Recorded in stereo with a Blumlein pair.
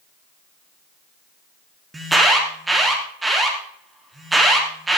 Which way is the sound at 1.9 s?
10° right.